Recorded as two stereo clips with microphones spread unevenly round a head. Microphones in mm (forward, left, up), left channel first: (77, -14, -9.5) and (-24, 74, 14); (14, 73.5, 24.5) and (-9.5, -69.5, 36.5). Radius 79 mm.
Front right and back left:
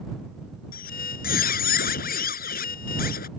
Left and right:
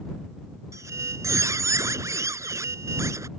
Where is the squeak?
30° right.